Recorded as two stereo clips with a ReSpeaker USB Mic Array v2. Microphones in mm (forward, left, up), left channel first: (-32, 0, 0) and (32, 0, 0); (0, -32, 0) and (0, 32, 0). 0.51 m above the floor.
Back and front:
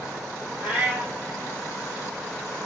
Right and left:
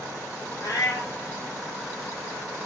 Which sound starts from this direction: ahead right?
A cat meowing, at 0.6 s.